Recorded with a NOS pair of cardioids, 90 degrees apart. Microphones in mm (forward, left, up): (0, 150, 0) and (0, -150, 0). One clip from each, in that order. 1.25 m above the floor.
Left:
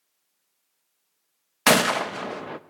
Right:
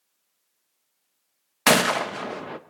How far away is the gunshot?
About 0.9 m.